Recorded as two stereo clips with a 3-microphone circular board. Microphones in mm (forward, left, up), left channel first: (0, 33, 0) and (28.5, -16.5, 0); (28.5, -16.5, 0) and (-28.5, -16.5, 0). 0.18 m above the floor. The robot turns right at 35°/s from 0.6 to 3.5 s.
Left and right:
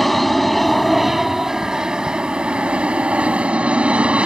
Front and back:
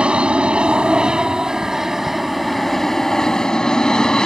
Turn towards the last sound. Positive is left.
turn(degrees=-55)